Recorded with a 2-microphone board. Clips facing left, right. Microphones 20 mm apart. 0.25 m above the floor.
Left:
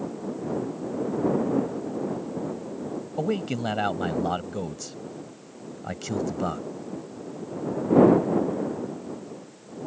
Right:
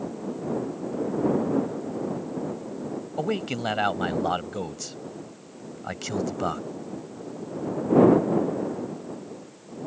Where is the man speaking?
15° right (ahead or behind).